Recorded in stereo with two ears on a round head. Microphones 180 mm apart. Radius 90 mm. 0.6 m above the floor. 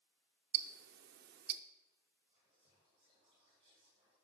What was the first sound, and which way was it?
Ticking, 50° right (ahead or behind).